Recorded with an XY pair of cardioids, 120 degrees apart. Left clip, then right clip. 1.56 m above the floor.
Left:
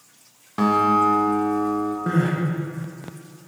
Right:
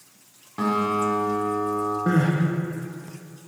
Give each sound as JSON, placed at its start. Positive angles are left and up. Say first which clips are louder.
{"t": 0.6, "sound": "a guitar", "louder": "left 5 dB", "azimuth_deg": 35, "distance_m": 1.0}
{"t": 2.1, "sound": "crying", "louder": "right 1 dB", "azimuth_deg": -5, "distance_m": 0.8}